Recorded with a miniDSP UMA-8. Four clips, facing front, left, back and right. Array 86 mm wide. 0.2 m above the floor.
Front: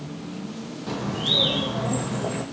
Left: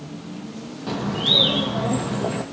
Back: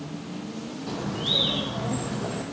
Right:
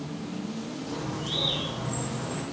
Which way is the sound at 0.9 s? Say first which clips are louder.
Left 12 dB, front 3 dB; 85° left.